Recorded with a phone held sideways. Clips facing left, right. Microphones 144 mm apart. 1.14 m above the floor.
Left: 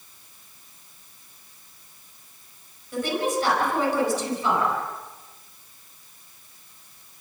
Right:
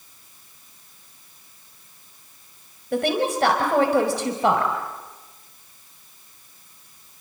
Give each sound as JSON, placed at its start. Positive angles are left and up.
{"t": 2.9, "sound": "a woman speaking", "side_deg": -60, "distance_m": 5.0}